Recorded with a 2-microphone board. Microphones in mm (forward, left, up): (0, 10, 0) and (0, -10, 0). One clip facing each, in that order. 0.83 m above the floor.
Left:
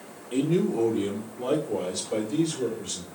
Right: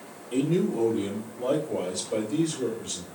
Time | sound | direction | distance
0.3 | a man speaking | 35° left (ahead or behind) | 1.6 m